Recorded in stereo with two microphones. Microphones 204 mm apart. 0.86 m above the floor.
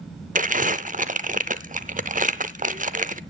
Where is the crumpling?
40° right (ahead or behind), 0.6 m.